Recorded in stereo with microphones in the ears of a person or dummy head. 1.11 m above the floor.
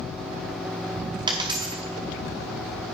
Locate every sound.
1.3 s a dropped coin: 25° right (ahead or behind), 1.0 m